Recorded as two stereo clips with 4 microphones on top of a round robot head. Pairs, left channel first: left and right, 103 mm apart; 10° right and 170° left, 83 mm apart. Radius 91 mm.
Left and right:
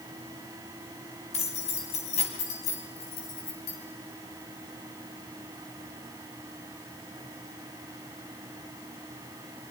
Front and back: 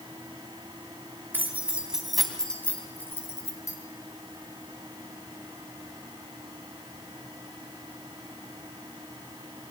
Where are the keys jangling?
105° left, 3.5 m; by 3.8 s 40° left, 4 m.